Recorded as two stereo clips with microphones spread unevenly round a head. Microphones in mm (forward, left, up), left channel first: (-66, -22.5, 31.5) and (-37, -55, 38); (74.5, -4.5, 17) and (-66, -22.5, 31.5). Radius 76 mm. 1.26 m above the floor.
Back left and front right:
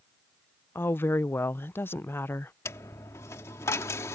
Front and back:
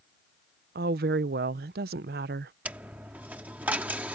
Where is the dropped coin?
115° left.